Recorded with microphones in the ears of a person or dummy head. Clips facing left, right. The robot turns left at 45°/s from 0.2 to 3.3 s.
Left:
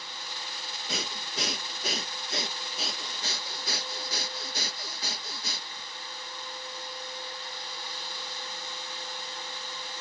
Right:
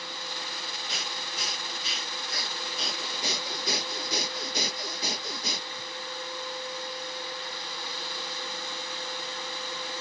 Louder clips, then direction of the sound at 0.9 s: Left 6 dB; 95° left.